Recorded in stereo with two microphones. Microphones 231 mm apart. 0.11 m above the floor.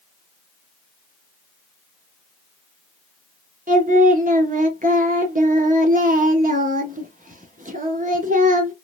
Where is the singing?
35° right (ahead or behind), 0.7 m.